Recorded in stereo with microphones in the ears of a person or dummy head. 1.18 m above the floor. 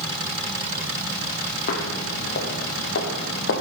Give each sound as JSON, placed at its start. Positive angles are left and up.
{"t": 1.7, "sound": "footsteps", "side_deg": 50, "distance_m": 2.5}